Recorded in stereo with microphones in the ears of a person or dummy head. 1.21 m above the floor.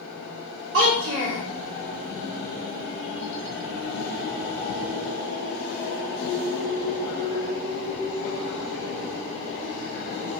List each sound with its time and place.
0.7 s a child speaking: 85° right, 1.7 m